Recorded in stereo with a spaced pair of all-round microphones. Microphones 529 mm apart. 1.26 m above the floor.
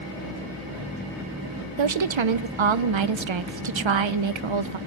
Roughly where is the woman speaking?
Right.